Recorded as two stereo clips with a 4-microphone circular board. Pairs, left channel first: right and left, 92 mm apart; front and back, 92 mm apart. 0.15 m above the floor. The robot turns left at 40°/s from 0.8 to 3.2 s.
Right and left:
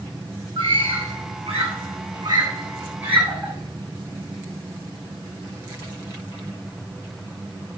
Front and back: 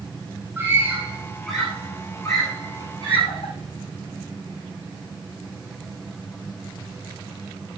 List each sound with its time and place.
0.6 s a scream: 115° left, 8 m; by 3.5 s 15° left, 8 m